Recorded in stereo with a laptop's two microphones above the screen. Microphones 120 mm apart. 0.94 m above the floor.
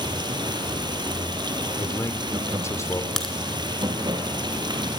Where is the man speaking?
25° left (ahead or behind), 3.5 m.